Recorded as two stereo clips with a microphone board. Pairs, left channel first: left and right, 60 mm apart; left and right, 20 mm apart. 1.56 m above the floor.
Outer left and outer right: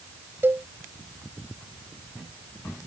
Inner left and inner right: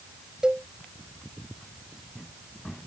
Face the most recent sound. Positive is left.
turn(degrees=-40)  # may be behind; listen again after turning